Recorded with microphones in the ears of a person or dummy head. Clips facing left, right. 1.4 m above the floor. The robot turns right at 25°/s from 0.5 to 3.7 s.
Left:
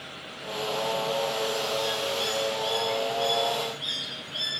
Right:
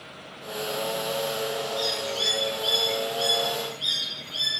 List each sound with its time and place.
1.8 s a bird: 80° right, 0.7 m; by 4.6 s 30° right, 0.7 m